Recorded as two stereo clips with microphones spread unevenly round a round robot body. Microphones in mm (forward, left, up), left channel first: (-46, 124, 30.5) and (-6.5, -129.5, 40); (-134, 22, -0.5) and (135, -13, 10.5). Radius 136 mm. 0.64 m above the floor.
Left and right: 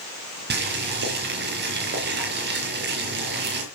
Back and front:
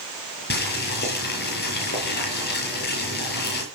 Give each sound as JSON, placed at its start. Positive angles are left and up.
{"t": 0.5, "sound": "boiling", "azimuth_deg": -130, "distance_m": 6.5}